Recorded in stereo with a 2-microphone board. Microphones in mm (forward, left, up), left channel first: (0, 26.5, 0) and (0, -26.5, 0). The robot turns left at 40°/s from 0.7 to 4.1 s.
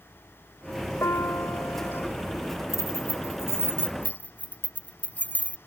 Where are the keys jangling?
85° left; by 5.6 s 35° left (ahead or behind).